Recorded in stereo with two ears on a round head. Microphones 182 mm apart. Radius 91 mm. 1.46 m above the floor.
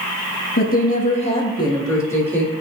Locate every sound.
0.6 s a woman speaking: 50° left (ahead or behind), 1.4 m; by 2.5 s 10° left (ahead or behind), 2.5 m